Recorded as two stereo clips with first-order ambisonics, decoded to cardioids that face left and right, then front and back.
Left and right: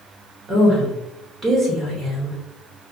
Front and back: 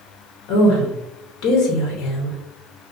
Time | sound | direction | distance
0.5 | a woman speaking | 25° right | 0.8 m